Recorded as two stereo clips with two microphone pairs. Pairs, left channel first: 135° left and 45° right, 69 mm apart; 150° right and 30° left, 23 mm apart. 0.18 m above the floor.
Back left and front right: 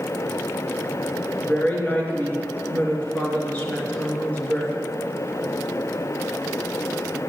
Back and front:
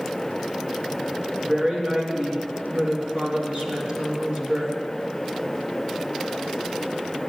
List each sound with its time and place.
1.4 s a woman speaking: 75° left, 3 m